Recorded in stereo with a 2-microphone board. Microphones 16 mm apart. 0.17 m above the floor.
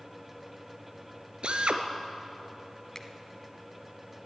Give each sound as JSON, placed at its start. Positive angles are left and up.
{"t": 1.4, "sound": "a drill", "side_deg": -70, "distance_m": 1.0}
{"t": 3.0, "sound": "a finger snap", "side_deg": 25, "distance_m": 1.0}